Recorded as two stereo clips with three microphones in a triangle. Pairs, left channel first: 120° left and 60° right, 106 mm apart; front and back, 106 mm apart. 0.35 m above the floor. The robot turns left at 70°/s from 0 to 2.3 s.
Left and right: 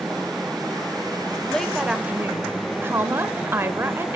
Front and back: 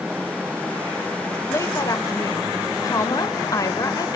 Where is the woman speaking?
45° left, 1.0 m; by 4.2 s 15° right, 1.0 m.